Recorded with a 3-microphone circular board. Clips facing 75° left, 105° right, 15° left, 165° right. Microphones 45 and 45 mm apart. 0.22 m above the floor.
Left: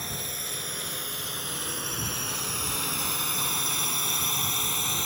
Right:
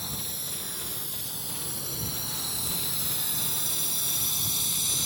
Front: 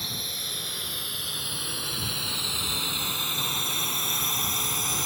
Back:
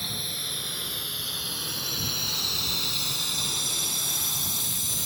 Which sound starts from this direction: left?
A drone, at 0.0 s.